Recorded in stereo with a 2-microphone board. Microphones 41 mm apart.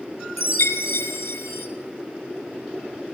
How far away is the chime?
About 1.4 m.